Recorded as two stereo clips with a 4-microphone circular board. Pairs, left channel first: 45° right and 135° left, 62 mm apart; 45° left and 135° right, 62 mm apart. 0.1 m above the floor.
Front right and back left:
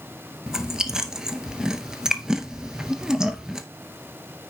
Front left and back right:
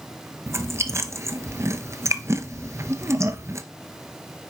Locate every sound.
0.5 s chewing: 145° right, 0.6 m